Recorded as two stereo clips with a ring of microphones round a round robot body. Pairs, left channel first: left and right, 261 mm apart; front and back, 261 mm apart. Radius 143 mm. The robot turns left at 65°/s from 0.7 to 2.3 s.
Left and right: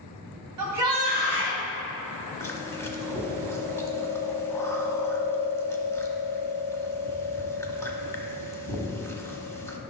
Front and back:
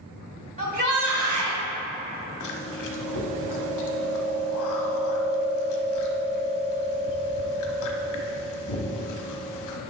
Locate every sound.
0.6 s a shout: 115° right, 2.5 m; by 1.6 s 175° right, 2.5 m
2.4 s chewing: 10° left, 1.1 m